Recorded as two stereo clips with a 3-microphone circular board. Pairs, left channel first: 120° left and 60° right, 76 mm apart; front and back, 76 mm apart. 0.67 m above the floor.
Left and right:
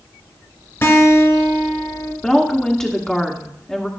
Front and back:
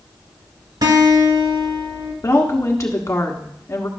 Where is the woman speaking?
40° left, 1.2 m.